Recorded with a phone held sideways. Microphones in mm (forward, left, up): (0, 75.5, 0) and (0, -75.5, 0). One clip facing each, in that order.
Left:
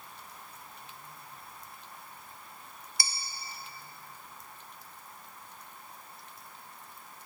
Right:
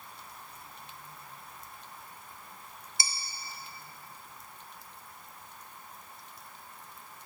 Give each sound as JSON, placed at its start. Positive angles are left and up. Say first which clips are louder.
{"t": 3.0, "sound": "dishes clattering", "louder": "right 1 dB", "side_deg": -20, "distance_m": 0.7}